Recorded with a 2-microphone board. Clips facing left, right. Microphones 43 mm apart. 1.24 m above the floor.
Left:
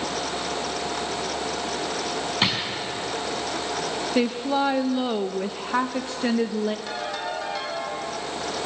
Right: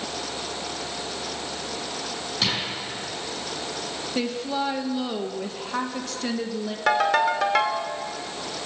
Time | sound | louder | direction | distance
2.4 | a drawer | left 1 dB | 30° left (ahead or behind) | 5 m
4.2 | a woman speaking | left 4 dB | 20° left (ahead or behind) | 0.8 m
6.9 | a ringtone | right 9 dB | 75° right (ahead or behind) | 1.9 m